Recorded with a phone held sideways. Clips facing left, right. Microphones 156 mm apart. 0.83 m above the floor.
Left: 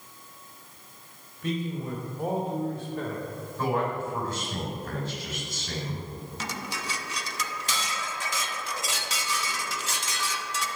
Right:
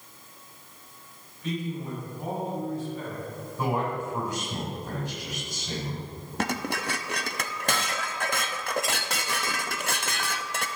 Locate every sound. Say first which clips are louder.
1.4 s a man speaking: left 1 dB; 55° left (ahead or behind), 3.5 m; by 3.3 s 60° left (ahead or behind), 2.5 m
3.6 s a man speaking: left 1 dB; 10° right (ahead or behind), 3.5 m
6.4 s dishes clattering: right 8 dB; 60° right (ahead or behind), 0.6 m